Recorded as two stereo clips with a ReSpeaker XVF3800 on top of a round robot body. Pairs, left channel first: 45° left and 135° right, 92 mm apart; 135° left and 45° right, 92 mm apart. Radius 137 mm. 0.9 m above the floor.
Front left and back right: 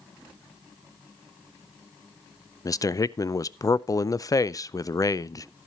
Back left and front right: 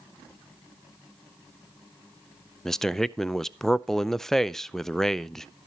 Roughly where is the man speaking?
Ahead left.